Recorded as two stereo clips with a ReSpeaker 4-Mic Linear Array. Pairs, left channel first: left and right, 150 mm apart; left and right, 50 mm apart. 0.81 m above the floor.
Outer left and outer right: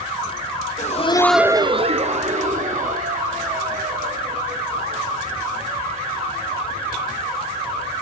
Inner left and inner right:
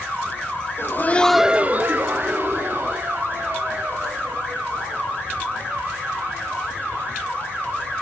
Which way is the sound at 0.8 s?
55° left (ahead or behind).